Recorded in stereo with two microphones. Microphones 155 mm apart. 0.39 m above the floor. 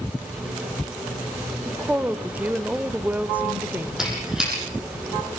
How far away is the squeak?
About 9 m.